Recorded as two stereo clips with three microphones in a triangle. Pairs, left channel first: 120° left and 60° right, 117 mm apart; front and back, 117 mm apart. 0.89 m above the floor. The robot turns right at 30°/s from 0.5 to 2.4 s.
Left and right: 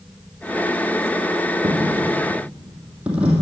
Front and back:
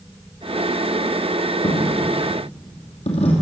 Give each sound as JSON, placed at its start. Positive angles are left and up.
{"t": 1.6, "sound": "a dropped coin", "azimuth_deg": -5, "distance_m": 2.5}